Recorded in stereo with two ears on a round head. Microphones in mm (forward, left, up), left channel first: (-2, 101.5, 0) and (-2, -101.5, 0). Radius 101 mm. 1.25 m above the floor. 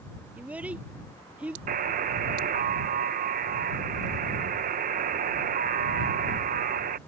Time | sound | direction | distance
0.4 | a child speaking | 5° right (ahead or behind) | ?
1.7 | a buzzer | 35° right (ahead or behind) | ?